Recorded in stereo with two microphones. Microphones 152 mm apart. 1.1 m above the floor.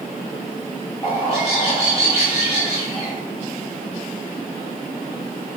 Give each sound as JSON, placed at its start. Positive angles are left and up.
{"t": 1.0, "sound": "a bird", "side_deg": 40, "distance_m": 1.7}